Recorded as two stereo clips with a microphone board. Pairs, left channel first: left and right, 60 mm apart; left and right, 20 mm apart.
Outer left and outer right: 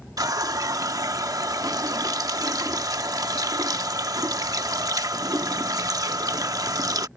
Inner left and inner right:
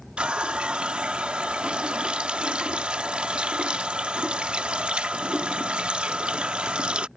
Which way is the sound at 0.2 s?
85° right.